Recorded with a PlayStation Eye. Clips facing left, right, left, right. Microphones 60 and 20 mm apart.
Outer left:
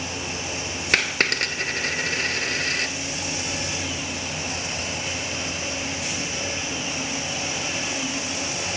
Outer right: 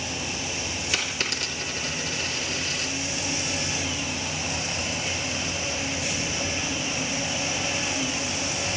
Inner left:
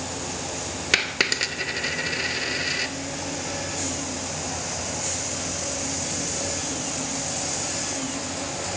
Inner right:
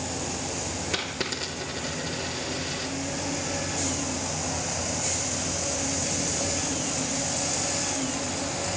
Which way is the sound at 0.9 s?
60° left (ahead or behind).